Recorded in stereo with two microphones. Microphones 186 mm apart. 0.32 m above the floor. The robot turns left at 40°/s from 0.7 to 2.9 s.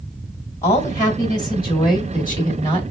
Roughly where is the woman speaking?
Centre.